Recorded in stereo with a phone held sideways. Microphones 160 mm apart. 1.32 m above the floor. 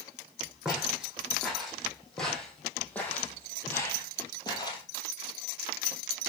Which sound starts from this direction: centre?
Footsteps, at 0.7 s.